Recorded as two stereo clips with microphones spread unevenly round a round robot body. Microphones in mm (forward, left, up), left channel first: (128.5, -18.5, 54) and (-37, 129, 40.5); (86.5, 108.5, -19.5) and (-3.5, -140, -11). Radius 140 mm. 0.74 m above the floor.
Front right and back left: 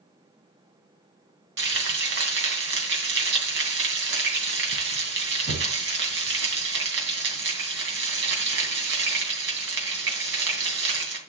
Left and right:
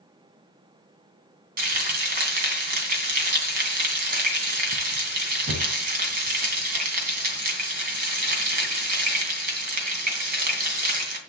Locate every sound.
1.6 s frying: 170° right, 2.5 m